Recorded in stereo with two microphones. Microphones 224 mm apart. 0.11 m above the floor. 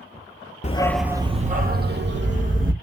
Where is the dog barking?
30° left (ahead or behind), 0.5 m; by 2.7 s 60° right (ahead or behind), 1.5 m.